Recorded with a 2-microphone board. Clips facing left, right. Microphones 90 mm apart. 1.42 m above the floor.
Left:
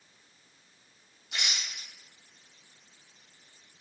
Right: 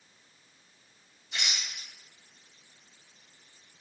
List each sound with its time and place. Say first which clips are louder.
1.3 s a rattle: even; 70° left (ahead or behind), 1.3 m